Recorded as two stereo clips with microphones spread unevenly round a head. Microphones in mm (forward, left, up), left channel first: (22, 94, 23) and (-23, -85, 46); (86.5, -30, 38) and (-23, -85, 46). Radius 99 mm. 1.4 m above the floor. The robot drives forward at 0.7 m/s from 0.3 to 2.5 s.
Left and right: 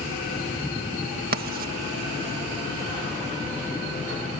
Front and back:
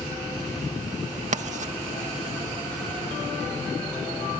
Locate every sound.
1.3 s writing: 140° right; by 1.7 s 145° right